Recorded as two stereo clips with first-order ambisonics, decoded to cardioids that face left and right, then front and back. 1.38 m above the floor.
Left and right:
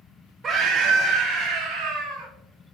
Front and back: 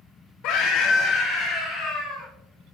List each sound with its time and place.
0.4 s a scream: 35° right, 0.9 m; by 2.3 s 100° right, 3 m